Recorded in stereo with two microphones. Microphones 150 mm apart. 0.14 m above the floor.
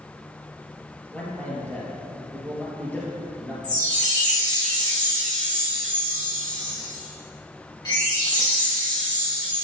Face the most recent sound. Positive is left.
turn(degrees=30)  # may be behind; listen again after turning